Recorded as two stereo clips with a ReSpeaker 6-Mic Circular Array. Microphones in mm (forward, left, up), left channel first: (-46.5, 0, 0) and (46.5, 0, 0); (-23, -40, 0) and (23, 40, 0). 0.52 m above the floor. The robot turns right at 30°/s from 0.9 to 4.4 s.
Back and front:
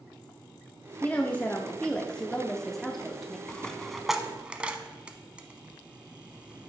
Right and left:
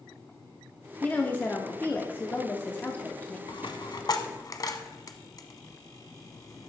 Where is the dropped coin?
105° right, 0.7 m; by 6.7 s 75° right, 0.7 m.